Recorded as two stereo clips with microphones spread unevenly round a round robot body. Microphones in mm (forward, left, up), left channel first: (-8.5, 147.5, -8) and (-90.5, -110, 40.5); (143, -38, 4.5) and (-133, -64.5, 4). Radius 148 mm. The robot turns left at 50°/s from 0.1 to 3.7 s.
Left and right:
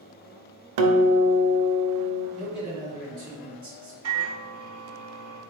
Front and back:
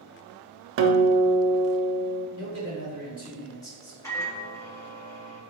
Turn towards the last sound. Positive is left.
turn(degrees=-75)